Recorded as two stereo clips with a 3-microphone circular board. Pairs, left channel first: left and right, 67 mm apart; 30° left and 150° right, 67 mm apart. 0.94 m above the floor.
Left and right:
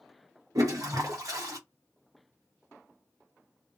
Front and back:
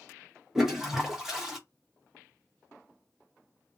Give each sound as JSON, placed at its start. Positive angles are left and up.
{"t": 0.6, "sound": "a toilet flushing", "azimuth_deg": -65, "distance_m": 0.9}